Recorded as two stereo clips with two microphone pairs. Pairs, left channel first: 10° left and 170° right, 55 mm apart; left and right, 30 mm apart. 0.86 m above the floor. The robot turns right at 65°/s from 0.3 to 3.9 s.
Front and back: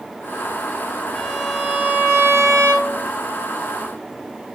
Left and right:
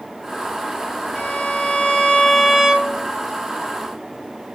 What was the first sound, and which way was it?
A violin, 90° left.